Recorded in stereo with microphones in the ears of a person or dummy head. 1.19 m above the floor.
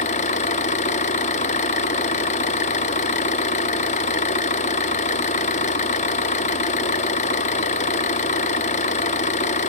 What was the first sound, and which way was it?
An engine running, 40° left (ahead or behind).